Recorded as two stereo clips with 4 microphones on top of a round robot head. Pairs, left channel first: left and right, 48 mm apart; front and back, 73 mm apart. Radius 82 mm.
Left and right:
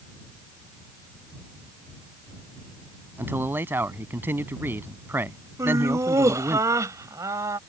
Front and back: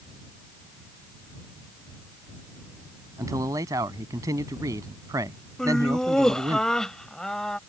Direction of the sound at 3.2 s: 135° right.